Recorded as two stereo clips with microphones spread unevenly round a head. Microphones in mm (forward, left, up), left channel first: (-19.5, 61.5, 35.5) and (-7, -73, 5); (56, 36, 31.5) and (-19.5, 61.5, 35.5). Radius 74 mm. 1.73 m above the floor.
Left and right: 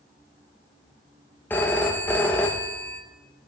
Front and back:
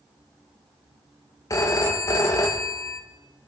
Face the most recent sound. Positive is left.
turn(degrees=25)